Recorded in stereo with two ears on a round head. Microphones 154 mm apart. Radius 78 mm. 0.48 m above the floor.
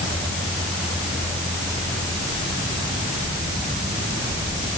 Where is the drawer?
I don't hear a drawer.